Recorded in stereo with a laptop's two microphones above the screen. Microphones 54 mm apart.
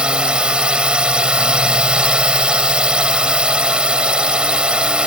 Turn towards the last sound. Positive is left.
turn(degrees=-20)  # may be behind; listen again after turning